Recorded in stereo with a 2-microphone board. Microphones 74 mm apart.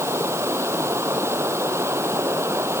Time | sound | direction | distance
0.0 | running water | 35° right (ahead or behind) | ?